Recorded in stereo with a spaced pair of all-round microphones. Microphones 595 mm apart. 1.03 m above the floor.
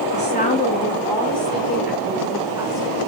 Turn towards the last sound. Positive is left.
turn(degrees=-5)  # may be behind; listen again after turning